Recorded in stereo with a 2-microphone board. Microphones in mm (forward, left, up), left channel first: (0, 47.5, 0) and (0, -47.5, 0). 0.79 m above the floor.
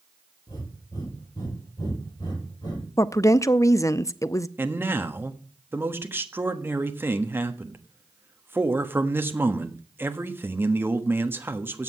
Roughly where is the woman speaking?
Left.